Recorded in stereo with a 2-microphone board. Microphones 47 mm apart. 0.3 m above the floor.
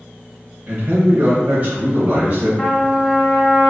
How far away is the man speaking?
About 1.2 m.